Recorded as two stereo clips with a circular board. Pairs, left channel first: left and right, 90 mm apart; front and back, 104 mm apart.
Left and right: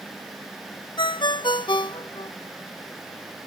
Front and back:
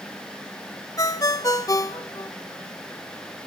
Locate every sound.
1.0 s a ringtone: 55° left, 0.5 m